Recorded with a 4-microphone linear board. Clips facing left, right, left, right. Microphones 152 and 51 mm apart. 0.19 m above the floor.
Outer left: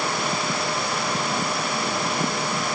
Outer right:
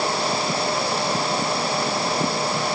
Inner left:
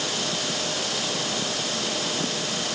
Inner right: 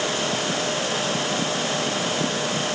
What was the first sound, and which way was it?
Only background noise.